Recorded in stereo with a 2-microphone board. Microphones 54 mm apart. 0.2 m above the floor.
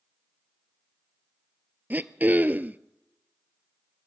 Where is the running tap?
I don't hear a running tap.